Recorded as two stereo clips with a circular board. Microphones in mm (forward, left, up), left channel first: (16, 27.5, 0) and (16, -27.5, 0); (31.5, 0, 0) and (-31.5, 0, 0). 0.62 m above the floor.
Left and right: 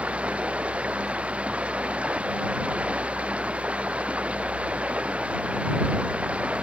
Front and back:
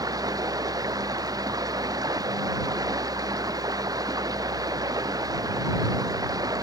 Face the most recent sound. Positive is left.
turn(degrees=-160)